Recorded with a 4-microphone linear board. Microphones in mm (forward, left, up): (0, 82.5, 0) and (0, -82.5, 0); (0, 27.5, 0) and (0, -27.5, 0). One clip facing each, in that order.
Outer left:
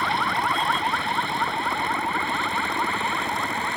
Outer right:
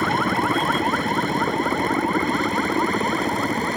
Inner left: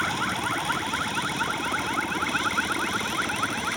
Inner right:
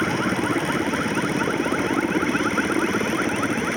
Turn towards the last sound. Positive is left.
turn(degrees=-40)  # may be behind; listen again after turning